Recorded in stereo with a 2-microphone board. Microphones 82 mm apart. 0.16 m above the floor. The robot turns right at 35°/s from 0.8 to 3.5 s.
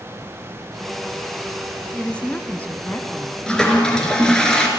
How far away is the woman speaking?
About 1.2 m.